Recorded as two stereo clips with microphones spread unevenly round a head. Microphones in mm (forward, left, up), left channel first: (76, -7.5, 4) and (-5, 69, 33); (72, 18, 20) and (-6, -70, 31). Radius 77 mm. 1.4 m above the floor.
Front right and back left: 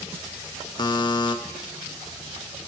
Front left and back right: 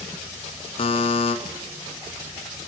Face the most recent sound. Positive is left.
turn(degrees=10)